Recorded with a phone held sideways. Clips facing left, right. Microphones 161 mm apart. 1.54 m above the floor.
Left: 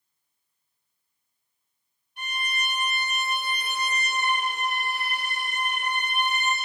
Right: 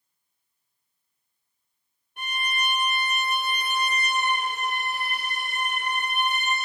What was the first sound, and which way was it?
A violin, 60° right (ahead or behind).